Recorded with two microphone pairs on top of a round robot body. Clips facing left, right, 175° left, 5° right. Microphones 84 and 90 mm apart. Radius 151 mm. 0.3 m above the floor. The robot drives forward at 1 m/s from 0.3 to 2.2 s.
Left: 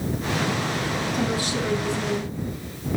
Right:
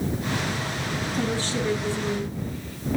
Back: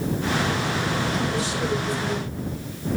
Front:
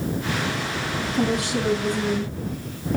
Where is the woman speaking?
15° left, 6 m; by 3.0 s 20° left, 5 m.